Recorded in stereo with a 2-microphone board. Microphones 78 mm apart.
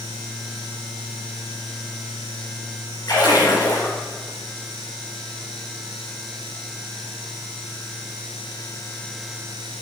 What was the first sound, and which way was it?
A splash, 60° left (ahead or behind).